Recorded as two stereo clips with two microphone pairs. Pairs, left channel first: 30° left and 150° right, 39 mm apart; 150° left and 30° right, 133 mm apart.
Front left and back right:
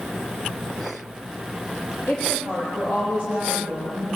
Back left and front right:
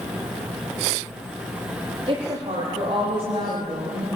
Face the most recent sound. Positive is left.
turn(degrees=10)